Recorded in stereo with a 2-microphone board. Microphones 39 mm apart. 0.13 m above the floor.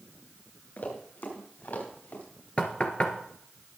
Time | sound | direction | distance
0.8 | running footsteps | 50° left (ahead or behind) | 5 m
2.6 | knocking | 30° left (ahead or behind) | 1.3 m